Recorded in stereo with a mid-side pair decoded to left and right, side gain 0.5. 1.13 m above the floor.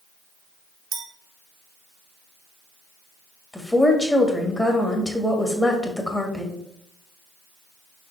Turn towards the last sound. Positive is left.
turn(degrees=5)